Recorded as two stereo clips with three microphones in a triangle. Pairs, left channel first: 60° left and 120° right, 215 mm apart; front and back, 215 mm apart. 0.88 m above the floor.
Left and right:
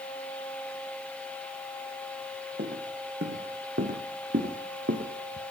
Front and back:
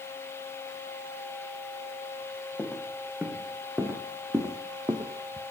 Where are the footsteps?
90° right, 3 m; by 5.4 s 115° right, 1.9 m.